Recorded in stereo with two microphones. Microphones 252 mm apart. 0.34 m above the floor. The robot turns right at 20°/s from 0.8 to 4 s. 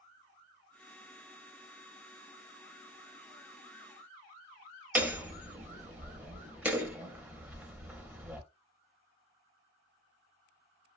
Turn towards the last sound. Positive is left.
turn(degrees=-5)  # may be behind; listen again after turning